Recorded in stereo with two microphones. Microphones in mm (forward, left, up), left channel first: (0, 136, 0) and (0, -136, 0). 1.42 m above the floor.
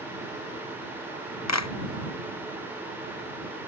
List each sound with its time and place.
1.5 s a clap: 75° left (ahead or behind)